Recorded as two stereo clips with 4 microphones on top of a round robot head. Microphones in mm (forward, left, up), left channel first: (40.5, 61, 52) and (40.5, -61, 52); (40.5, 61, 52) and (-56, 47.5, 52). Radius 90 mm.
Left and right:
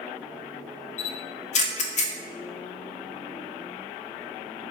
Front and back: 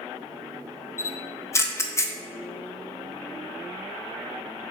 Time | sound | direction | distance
1.0 | a camera shutter | 70° left | 0.5 m